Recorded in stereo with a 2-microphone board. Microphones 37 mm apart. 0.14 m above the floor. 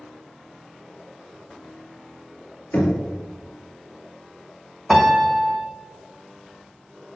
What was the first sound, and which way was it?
Knocking, 60° left (ahead or behind).